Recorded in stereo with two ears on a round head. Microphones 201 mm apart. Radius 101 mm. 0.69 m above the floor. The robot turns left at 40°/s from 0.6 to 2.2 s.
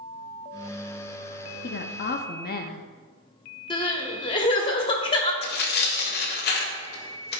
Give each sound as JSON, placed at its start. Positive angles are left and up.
{"t": 1.6, "sound": "a woman speaking", "side_deg": 45, "distance_m": 0.8}
{"t": 3.7, "sound": "crying", "side_deg": 25, "distance_m": 1.4}
{"t": 5.4, "sound": "tearing paper", "side_deg": 45, "distance_m": 1.5}